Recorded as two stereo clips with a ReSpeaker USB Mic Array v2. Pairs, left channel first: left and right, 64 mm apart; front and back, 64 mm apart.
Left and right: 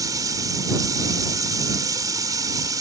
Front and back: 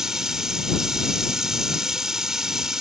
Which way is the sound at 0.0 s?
95° right.